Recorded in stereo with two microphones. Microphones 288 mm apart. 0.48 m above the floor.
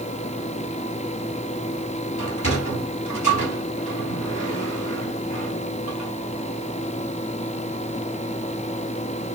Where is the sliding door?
70° left (ahead or behind), 3.5 m.